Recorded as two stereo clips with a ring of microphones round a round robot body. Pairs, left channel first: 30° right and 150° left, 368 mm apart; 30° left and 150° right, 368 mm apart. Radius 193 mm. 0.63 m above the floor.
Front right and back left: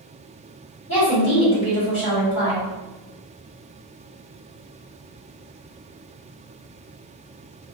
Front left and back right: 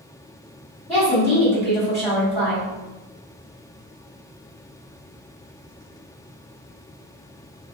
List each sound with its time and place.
0.9 s a woman speaking: 55° right, 1.5 m